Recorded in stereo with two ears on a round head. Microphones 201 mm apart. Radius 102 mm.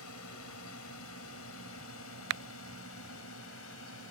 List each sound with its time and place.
0.0 s a drone: 70° left (ahead or behind); by 4.1 s 60° left (ahead or behind)